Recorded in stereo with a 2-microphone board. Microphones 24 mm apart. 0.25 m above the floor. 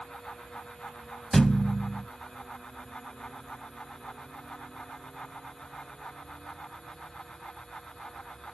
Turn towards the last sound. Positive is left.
turn(degrees=10)  # may be behind; listen again after turning